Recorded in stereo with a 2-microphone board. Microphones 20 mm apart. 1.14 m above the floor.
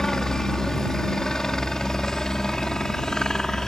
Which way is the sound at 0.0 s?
30° left (ahead or behind).